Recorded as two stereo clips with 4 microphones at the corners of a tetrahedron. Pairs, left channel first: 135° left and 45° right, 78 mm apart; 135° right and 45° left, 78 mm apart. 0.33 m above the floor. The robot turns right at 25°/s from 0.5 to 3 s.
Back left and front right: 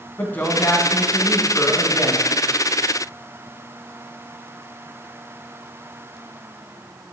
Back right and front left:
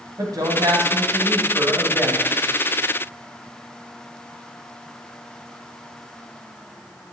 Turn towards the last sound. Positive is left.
turn(degrees=135)